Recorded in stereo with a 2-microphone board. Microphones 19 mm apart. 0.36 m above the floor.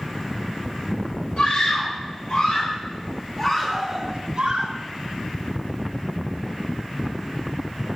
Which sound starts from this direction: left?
A scream, at 1.4 s.